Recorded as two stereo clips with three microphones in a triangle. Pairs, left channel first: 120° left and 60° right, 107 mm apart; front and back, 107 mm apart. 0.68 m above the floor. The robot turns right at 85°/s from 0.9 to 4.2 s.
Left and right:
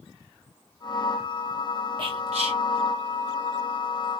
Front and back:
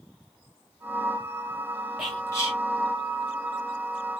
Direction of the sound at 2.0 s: 90° right.